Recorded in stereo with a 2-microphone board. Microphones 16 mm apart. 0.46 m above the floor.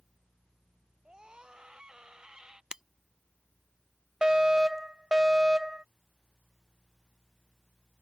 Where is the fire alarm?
50° right (ahead or behind).